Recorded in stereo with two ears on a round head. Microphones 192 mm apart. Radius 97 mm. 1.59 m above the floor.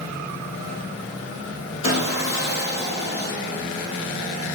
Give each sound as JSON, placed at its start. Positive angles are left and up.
{"t": 1.8, "sound": "sawing", "side_deg": 25, "distance_m": 3.0}